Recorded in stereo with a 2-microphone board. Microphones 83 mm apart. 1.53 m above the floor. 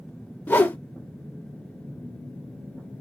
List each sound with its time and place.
0.5 s a whoosh: 20° left (ahead or behind), 0.6 m